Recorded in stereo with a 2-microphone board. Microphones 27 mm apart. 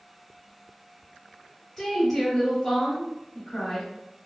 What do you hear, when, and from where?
1.8 s a woman speaking: 10° left (ahead or behind), 1.4 m